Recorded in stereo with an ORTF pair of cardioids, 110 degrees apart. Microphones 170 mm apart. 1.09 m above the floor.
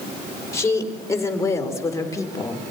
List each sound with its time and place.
0.5 s a woman speaking: 15° left, 4.5 m; by 2.6 s 20° left, 3.5 m